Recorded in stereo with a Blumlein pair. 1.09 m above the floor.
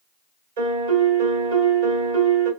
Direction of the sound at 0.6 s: 60° right.